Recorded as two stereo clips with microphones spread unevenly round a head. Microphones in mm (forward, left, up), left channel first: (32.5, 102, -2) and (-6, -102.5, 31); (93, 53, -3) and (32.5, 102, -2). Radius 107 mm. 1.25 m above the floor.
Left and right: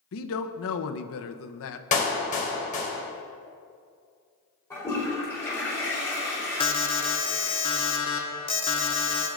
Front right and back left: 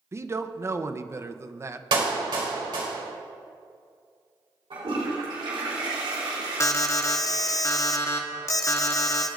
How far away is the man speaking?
About 0.9 m.